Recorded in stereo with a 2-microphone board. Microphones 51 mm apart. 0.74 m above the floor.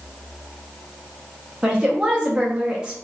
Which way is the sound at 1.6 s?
15° right (ahead or behind).